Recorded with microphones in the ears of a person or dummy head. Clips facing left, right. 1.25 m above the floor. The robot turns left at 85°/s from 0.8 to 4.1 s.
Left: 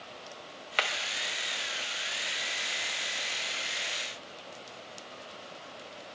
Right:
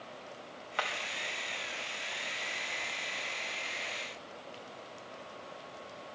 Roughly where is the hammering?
Centre.